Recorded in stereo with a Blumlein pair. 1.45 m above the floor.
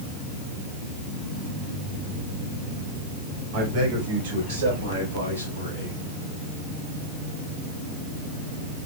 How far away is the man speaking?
About 4 m.